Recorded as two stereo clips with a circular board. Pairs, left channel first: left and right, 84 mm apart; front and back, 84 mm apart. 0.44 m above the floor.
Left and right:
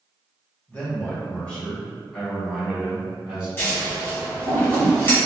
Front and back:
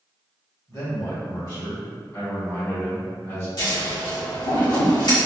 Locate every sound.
0.7 s a man speaking: 20° left, 2.0 m; by 3.5 s 30° right, 1.2 m
3.6 s scissors: 25° left, 1.9 m